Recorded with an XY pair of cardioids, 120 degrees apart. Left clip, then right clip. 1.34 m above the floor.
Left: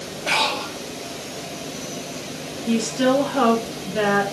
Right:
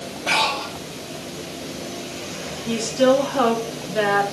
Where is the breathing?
Straight ahead, 3 m.